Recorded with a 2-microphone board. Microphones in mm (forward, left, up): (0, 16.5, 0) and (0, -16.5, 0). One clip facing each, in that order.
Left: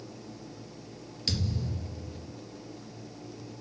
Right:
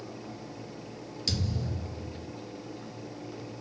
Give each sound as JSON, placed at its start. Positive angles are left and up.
{"t": 1.3, "sound": "a thud", "side_deg": 10, "distance_m": 3.5}